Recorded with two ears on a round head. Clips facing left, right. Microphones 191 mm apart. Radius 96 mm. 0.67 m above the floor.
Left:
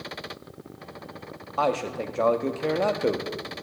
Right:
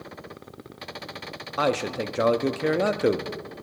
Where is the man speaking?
20° right (ahead or behind), 0.5 m.